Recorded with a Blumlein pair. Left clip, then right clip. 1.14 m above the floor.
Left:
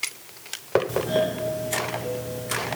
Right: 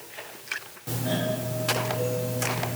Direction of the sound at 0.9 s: 50° right.